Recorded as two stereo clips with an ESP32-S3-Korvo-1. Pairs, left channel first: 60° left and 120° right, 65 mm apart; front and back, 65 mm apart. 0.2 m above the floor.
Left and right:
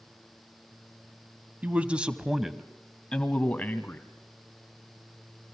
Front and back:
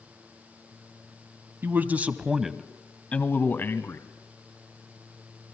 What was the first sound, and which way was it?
A man speaking, 170° right.